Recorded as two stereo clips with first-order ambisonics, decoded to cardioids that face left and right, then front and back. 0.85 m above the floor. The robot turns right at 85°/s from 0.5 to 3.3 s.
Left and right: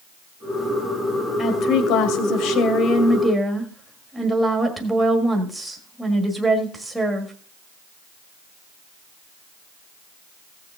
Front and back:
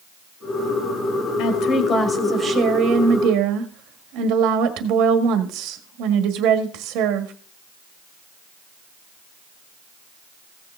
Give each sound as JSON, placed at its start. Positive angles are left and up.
{"t": 1.4, "sound": "a woman speaking", "azimuth_deg": 20, "distance_m": 1.6}